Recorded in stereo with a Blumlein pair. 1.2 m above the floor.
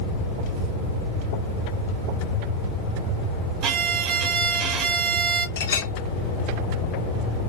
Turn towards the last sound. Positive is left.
turn(degrees=60)